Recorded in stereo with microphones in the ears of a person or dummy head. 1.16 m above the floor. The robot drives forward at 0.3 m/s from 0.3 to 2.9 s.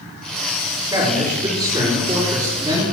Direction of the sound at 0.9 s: 25° right (ahead or behind).